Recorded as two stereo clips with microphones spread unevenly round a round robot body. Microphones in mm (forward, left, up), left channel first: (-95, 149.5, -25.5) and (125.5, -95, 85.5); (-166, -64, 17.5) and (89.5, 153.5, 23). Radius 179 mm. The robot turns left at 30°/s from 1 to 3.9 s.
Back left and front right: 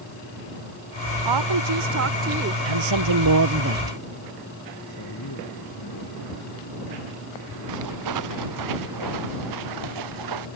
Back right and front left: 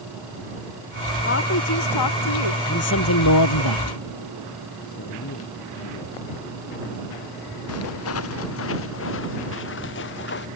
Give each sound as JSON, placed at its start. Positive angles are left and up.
{"t": 1.2, "sound": "a woman speaking", "azimuth_deg": -75}
{"t": 2.6, "sound": "a man speaking", "azimuth_deg": -75}
{"t": 4.9, "sound": "a man speaking", "azimuth_deg": 170}
{"t": 7.7, "sound": "footsteps", "azimuth_deg": -85}